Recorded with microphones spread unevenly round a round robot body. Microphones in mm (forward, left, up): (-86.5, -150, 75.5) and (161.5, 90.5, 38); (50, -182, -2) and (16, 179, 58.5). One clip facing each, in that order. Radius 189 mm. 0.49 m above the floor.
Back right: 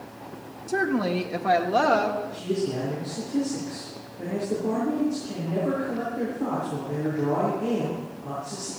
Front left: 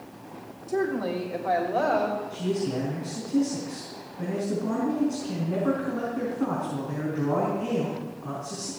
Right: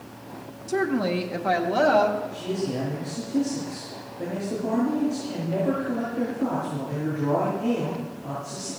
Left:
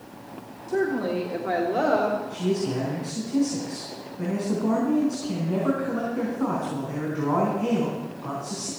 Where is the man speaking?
100° left, 4.5 m.